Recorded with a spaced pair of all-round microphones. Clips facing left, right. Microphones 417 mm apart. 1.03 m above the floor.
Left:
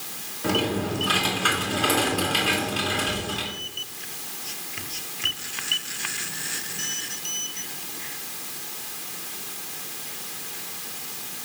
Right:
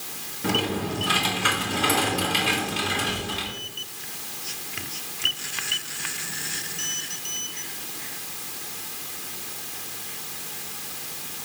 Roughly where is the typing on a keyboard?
Right.